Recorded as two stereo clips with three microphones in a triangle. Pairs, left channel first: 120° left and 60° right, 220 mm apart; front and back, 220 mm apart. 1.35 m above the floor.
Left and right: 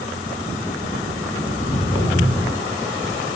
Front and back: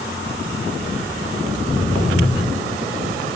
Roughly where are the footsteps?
Ahead left.